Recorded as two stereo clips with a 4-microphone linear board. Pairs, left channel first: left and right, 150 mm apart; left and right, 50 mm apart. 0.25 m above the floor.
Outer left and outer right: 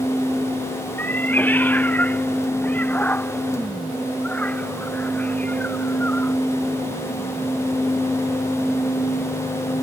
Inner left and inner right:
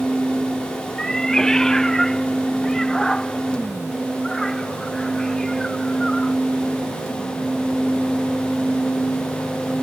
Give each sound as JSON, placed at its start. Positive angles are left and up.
{"t": 1.0, "sound": "a cat meowing", "side_deg": 10}